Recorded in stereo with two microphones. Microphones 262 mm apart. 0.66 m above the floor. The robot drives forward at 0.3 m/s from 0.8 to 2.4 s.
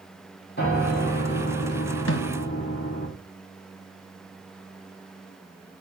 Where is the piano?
40° left (ahead or behind), 5 m; by 3.1 s 35° left (ahead or behind), 5.5 m.